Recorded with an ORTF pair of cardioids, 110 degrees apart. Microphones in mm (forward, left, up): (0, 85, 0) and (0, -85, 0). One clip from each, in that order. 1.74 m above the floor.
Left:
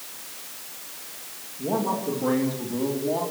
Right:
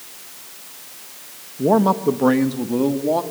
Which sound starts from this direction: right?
A man speaking, at 1.6 s.